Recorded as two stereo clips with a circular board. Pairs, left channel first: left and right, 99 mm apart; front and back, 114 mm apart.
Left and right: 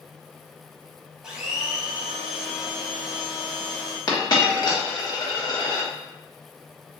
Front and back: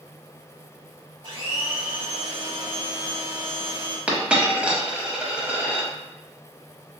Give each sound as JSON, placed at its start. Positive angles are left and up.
{"t": 1.2, "sound": "a blender", "azimuth_deg": -170, "distance_m": 0.9}
{"t": 4.1, "sound": "a dropped coin", "azimuth_deg": 105, "distance_m": 0.7}